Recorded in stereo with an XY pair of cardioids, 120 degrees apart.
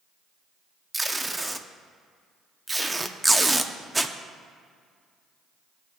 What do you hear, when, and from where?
0.9 s tape being pulled: 15° right, 0.7 m